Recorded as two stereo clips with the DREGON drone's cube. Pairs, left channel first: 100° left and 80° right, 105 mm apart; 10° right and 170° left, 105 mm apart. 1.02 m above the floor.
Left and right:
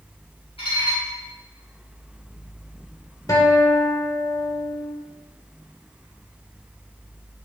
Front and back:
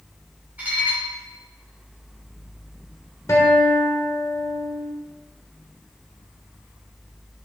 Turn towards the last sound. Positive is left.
turn(degrees=45)